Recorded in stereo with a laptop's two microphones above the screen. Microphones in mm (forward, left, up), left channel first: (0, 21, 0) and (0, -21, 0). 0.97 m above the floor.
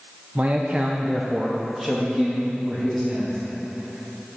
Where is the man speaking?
35° right (ahead or behind), 0.6 m; by 3.4 s 10° left (ahead or behind), 2.0 m.